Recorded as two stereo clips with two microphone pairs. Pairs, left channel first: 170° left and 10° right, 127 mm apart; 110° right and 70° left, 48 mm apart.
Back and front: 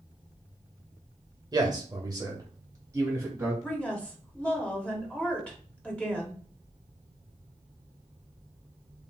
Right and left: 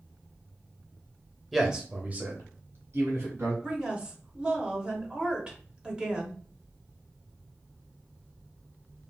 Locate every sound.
1.5 s a man speaking: 15° right, 0.9 m; by 3.5 s 60° left, 1.8 m
3.6 s a woman speaking: 105° left, 0.9 m